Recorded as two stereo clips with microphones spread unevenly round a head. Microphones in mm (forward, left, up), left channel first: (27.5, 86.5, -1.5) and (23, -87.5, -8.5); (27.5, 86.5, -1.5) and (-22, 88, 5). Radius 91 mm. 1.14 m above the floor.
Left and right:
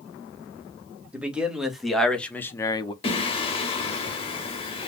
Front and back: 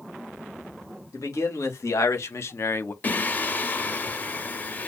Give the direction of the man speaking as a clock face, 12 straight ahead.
12 o'clock.